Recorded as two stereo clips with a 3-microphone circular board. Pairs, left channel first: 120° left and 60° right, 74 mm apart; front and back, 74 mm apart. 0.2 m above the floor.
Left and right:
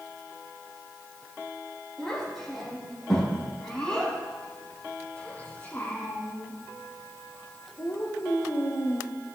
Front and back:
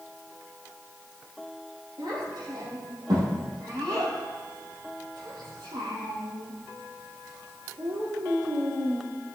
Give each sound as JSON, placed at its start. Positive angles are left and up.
{"t": 2.0, "sound": "a child speaking", "azimuth_deg": -150, "distance_m": 5.0}